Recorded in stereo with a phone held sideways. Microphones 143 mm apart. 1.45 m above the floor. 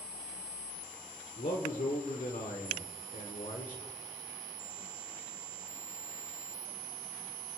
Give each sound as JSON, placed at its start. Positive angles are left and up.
{"t": 1.4, "sound": "a man speaking", "side_deg": 65, "distance_m": 1.3}